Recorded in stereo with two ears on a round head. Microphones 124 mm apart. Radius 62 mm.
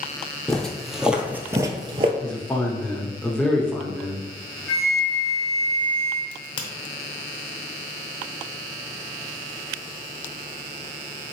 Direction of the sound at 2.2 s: 10° left (ahead or behind).